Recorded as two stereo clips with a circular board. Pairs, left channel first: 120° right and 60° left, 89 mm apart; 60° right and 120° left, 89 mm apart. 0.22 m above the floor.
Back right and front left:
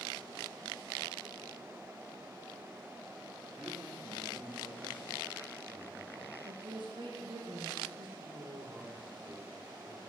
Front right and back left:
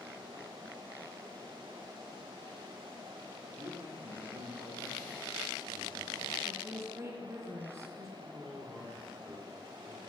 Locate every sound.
3.6 s a man speaking: 130° left, 5 m
6.5 s a woman speaking: 70° left, 3 m
8.2 s a man speaking: 45° left, 3.5 m